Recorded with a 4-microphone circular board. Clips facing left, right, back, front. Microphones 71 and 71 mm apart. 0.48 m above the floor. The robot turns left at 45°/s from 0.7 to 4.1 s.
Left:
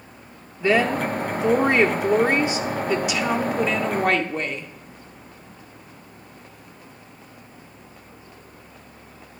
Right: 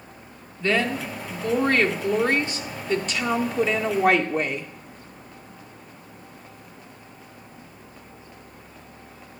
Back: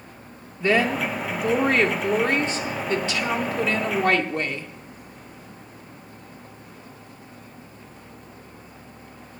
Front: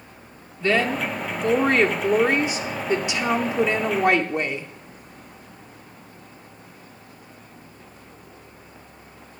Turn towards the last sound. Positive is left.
turn(degrees=-15)